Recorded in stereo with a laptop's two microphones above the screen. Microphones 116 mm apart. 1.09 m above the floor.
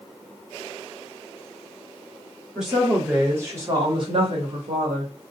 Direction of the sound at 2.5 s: Centre (ahead or behind).